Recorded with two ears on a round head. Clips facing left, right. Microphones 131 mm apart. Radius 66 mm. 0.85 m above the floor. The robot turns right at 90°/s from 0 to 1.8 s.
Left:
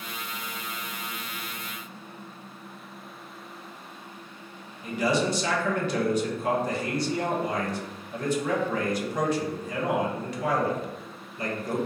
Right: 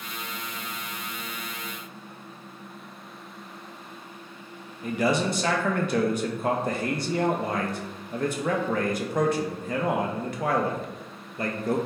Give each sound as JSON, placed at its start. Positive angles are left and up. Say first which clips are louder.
{"t": 4.8, "sound": "a man speaking", "louder": "right 1 dB", "side_deg": -45, "distance_m": 0.5}